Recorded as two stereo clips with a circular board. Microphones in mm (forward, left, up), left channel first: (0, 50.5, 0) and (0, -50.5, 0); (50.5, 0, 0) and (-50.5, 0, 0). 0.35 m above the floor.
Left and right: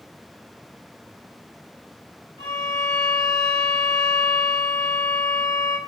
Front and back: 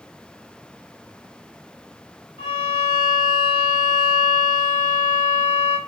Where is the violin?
110° right, 2.5 m.